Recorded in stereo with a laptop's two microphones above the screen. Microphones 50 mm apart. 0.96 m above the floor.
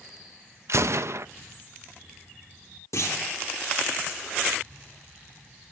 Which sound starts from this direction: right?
A gunshot, at 0.7 s.